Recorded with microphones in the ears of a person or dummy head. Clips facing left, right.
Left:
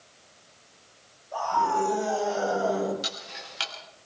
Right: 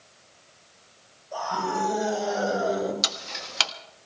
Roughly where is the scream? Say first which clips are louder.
Left 2 dB; right.